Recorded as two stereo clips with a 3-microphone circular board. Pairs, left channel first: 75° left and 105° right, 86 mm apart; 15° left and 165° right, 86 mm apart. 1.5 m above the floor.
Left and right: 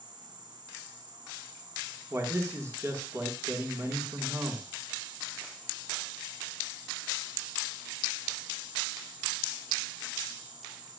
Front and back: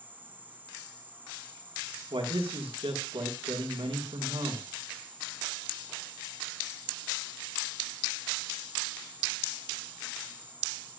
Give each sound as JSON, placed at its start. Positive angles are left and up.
{"t": 0.0, "sound": "an insect", "azimuth_deg": -100, "distance_m": 2.5}
{"t": 2.1, "sound": "a man speaking", "azimuth_deg": -160, "distance_m": 2.0}